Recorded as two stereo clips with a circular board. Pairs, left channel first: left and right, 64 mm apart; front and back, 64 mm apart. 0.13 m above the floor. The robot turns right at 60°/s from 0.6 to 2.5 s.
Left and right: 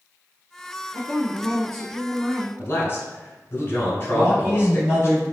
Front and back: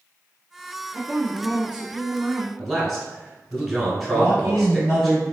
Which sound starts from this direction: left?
A man speaking, at 2.6 s.